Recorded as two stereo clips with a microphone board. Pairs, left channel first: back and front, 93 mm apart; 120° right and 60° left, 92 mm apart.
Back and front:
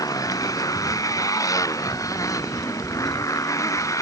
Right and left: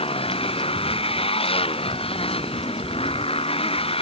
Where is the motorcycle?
130° right; by 4.0 s 125° right.